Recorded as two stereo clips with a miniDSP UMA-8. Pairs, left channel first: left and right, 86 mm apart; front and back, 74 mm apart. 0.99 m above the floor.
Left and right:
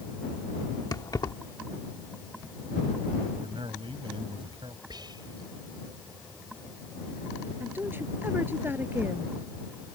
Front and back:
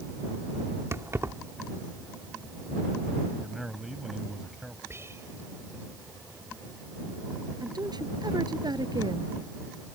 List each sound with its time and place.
0.9 s keys jangling: 130° left
3.4 s a man speaking: 95° right
4.9 s whispering: 125° right
7.6 s a woman speaking: 155° right